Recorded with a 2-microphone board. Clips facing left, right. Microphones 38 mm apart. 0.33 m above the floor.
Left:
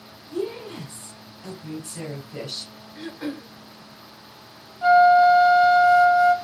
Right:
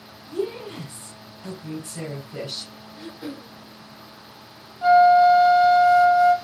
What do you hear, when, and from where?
0.3 s a woman speaking: centre (ahead or behind), 2.5 m
3.0 s throat clearing: 70° left (ahead or behind), 0.8 m
4.8 s a flute: 5° left (ahead or behind), 1.2 m